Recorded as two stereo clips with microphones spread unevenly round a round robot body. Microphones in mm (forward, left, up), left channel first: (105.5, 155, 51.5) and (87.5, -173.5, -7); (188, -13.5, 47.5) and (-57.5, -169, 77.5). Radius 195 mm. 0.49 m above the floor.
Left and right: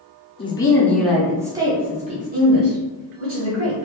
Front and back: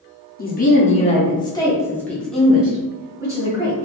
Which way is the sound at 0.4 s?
5° left.